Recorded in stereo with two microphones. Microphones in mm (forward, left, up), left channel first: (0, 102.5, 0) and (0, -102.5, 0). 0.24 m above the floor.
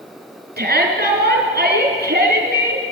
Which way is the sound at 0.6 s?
55° right (ahead or behind).